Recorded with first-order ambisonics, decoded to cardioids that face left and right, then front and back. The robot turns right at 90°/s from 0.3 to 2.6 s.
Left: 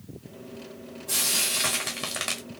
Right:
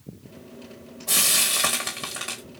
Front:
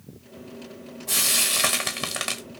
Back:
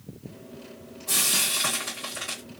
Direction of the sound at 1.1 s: 80° right.